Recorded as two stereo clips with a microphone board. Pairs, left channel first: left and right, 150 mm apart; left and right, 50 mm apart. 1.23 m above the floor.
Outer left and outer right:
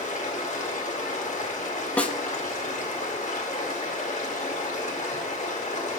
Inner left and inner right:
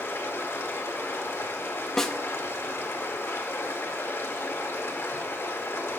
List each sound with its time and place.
0.0 s running water: 55° left (ahead or behind), 2 m
2.0 s a snare drum: 10° left (ahead or behind), 1.0 m